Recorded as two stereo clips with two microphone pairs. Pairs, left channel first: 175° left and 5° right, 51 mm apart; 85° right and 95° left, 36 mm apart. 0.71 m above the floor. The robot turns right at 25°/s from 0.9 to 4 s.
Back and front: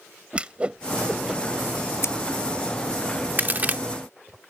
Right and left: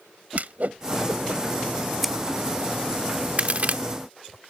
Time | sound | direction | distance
0.3 | a whoosh | 65° left | ?
2.0 | scissors | straight behind | ?
3.4 | a crack | 45° left | ?